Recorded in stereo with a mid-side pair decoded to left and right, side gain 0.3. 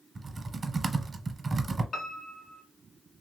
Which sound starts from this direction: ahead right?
Typing on a keyboard, at 0.1 s.